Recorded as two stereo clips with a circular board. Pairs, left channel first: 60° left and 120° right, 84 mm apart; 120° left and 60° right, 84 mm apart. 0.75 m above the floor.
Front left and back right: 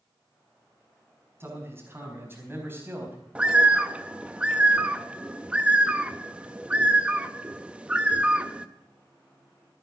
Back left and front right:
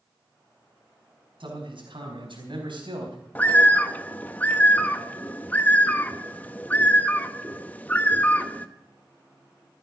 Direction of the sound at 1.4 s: 60° right.